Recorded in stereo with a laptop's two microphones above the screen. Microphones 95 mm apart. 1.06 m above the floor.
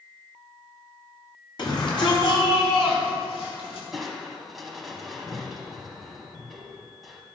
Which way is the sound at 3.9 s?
Centre (ahead or behind).